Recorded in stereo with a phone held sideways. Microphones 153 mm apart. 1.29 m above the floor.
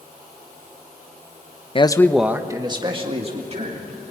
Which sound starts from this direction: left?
A man speaking, at 1.8 s.